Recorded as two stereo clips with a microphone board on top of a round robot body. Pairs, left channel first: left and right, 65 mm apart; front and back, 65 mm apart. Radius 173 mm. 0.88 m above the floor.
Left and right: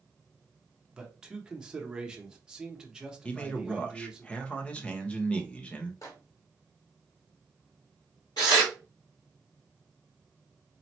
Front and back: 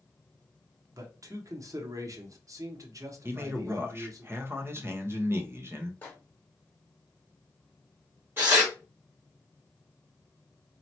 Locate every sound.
0.9 s a man speaking: 165° right, 1.2 m
3.2 s a man speaking: 150° left, 1.2 m
6.0 s a microwave: 60° left, 1.2 m
8.4 s tearing paper: 115° left, 0.6 m